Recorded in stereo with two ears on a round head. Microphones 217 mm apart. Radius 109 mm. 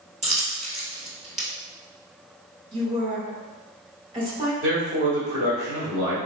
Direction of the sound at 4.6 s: 40° right (ahead or behind).